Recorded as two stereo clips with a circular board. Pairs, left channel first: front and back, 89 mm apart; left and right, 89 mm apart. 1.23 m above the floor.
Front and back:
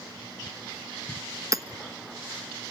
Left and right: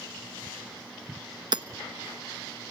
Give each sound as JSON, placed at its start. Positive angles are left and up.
{"t": 1.5, "sound": "hammering", "azimuth_deg": -125, "distance_m": 1.2}